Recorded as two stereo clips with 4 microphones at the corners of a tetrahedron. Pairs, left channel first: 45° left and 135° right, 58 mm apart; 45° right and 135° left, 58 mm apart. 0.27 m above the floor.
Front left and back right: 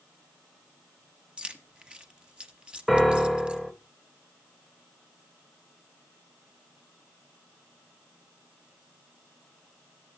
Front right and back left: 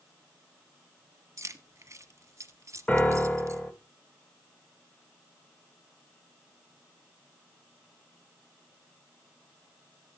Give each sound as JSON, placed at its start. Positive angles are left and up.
{"t": 1.4, "sound": "keys jangling", "azimuth_deg": 155, "distance_m": 1.1}
{"t": 2.9, "sound": "a piano", "azimuth_deg": -55, "distance_m": 1.4}